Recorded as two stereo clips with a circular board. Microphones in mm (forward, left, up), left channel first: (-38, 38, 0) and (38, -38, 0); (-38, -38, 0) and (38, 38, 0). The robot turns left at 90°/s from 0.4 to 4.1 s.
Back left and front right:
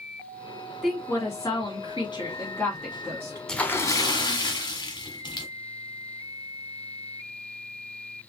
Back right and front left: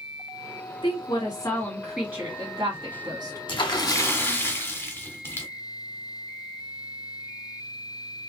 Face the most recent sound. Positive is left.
turn(degrees=165)